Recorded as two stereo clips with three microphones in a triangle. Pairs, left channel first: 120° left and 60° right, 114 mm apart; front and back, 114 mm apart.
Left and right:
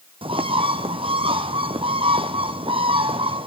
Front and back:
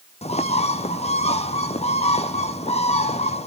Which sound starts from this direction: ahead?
A bird, at 0.2 s.